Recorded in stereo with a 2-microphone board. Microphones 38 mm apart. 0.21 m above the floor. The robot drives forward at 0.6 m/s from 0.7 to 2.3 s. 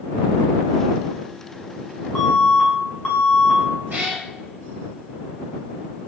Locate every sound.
2.1 s an alarm: 20° left (ahead or behind), 1.1 m
3.9 s a cat meowing: 65° right (ahead or behind), 1.1 m